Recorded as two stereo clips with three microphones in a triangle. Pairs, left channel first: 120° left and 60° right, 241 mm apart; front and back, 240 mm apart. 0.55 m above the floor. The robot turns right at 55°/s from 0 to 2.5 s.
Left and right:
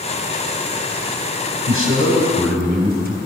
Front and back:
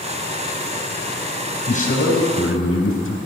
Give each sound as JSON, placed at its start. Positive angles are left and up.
{"t": 1.7, "sound": "a man speaking", "azimuth_deg": -60, "distance_m": 3.5}